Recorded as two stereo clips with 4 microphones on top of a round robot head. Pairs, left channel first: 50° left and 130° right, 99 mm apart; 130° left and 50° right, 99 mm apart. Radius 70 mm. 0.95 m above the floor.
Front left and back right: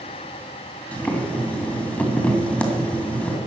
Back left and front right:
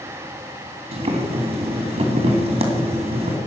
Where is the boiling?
25° right, 2 m.